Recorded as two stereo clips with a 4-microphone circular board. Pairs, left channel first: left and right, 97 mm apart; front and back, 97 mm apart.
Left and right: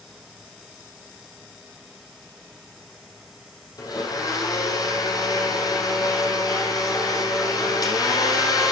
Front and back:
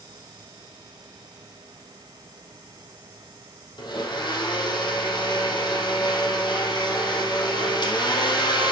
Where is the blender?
40° left, 5 m.